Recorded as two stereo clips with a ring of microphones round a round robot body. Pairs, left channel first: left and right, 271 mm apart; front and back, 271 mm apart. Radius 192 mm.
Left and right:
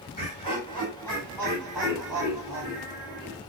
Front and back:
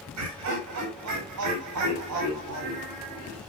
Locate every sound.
0.1 s laughter: 160° left, 4.5 m; by 3.4 s 165° right, 5 m